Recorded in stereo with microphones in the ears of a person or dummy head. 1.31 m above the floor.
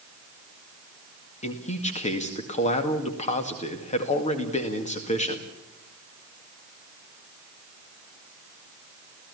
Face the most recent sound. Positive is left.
turn(degrees=35)  # may be behind; listen again after turning